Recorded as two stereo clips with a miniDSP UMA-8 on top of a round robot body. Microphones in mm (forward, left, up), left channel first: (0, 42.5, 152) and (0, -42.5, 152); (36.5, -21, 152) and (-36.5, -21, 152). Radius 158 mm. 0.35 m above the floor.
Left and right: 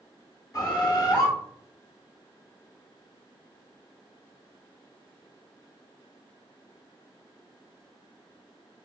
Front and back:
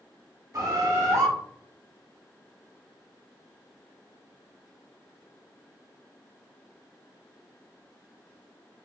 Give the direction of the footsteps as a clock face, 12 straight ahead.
I don't hear footsteps.